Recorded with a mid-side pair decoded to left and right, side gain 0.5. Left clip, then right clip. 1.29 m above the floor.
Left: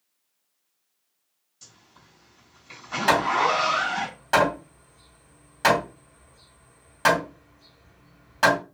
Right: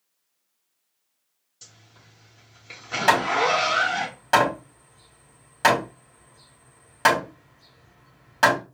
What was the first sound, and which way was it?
A zipper, 25° right.